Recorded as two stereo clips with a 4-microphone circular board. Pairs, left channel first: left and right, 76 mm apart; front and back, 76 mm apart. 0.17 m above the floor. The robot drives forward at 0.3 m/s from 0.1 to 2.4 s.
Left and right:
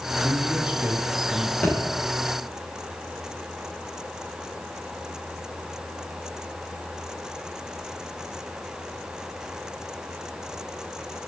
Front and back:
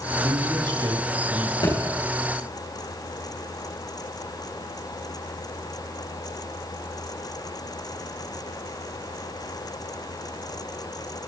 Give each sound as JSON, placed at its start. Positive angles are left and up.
{"t": 0.2, "sound": "a man speaking", "azimuth_deg": -165, "distance_m": 2.5}
{"t": 1.6, "sound": "a thud", "azimuth_deg": 20, "distance_m": 6.0}